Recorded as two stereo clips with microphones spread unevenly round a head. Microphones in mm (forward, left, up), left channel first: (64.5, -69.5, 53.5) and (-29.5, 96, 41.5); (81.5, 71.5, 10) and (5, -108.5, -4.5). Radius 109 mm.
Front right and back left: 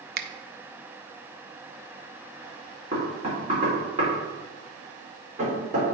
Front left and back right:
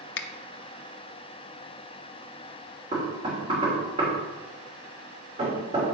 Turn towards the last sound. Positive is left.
turn(degrees=180)